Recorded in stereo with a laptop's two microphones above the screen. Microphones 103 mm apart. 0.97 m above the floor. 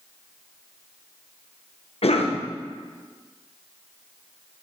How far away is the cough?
About 0.5 m.